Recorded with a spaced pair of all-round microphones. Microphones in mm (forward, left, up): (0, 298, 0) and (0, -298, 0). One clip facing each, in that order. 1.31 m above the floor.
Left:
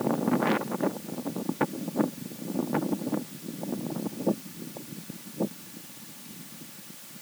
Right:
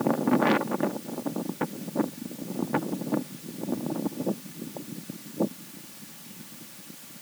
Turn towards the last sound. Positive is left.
No sound to turn to.